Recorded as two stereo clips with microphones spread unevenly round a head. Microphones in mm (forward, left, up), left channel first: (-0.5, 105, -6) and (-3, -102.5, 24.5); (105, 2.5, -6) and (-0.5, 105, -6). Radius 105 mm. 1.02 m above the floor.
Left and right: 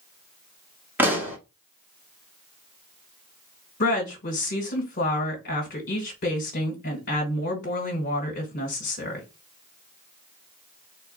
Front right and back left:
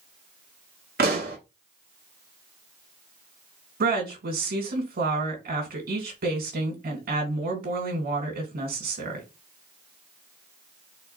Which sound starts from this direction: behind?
A pop, at 1.0 s.